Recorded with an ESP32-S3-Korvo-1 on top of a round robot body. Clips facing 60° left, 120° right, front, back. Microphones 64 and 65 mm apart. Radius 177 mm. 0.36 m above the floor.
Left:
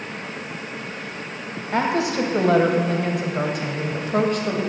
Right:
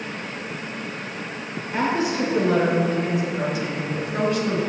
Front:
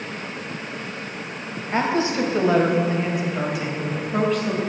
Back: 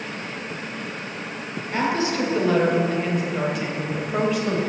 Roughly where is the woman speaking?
Ahead left.